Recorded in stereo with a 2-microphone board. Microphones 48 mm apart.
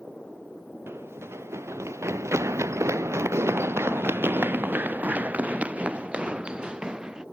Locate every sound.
0.9 s running footsteps: 60° right (ahead or behind); by 7.2 s 15° right (ahead or behind)